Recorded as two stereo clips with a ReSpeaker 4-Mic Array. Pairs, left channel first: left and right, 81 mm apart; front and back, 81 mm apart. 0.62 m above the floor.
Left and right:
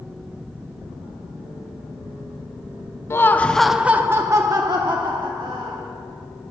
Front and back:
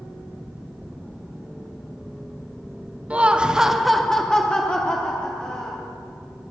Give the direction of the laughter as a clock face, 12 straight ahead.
8 o'clock.